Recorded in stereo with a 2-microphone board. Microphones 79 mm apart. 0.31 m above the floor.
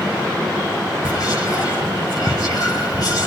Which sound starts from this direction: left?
Whispering, at 1.0 s.